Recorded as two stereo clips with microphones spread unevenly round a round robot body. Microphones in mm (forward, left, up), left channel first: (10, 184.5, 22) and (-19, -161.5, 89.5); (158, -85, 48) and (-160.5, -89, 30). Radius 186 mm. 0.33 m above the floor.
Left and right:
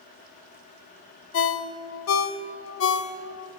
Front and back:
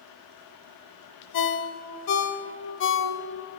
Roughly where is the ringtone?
Ahead left.